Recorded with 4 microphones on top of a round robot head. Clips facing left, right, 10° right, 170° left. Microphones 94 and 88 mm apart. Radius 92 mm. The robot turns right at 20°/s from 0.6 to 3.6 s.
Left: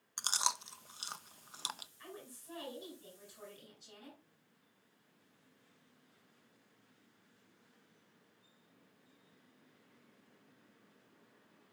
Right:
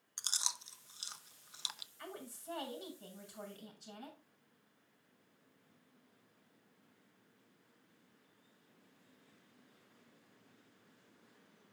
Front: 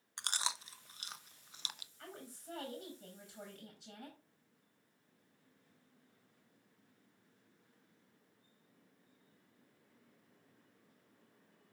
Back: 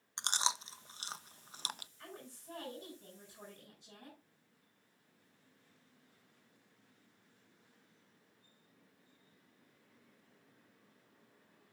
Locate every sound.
0.2 s chewing: 105° left, 0.5 m; by 1.9 s 130° left, 0.5 m
2.0 s a woman speaking: 75° right, 6.5 m; by 4.2 s 40° right, 6.5 m